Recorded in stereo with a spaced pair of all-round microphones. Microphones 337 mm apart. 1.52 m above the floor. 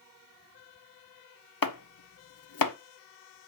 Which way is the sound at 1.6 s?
85° left.